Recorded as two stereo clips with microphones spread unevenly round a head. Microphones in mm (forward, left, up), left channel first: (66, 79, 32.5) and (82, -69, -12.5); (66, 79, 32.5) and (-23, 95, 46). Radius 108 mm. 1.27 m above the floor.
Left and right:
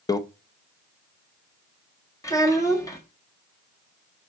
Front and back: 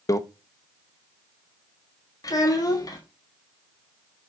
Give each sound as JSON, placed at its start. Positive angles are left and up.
{"t": 0.1, "sound": "a microwave", "azimuth_deg": 40, "distance_m": 0.8}
{"t": 2.2, "sound": "a child speaking", "azimuth_deg": 35, "distance_m": 1.3}